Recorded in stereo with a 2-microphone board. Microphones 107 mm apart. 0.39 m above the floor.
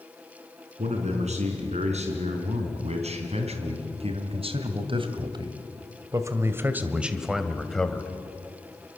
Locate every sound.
0.8 s a man speaking: 75° right (ahead or behind), 5 m; by 8.1 s 10° left (ahead or behind), 2 m